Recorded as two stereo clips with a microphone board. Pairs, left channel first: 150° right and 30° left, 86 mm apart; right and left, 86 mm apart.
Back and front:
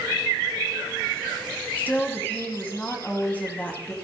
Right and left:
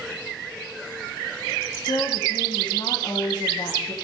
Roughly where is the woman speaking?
Right.